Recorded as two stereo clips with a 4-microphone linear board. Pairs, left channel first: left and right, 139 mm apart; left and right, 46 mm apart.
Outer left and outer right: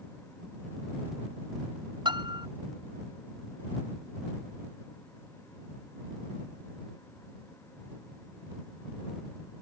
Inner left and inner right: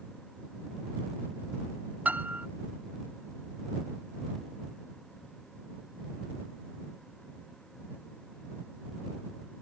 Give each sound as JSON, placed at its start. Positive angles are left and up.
{"t": 2.0, "sound": "a piano", "side_deg": -35}